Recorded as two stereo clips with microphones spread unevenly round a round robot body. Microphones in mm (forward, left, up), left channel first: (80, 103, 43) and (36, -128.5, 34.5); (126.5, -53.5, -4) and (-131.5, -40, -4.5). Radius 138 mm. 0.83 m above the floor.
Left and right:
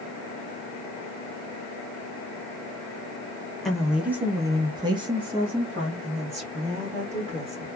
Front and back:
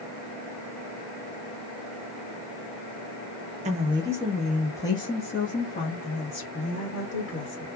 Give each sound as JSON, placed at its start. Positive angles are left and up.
{"t": 3.6, "sound": "a woman speaking", "azimuth_deg": 170, "distance_m": 0.9}